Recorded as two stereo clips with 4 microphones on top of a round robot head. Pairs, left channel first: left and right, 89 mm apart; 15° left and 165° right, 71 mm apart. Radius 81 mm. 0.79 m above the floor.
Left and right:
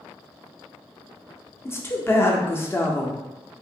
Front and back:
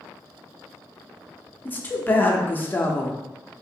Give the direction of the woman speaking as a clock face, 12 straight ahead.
10 o'clock.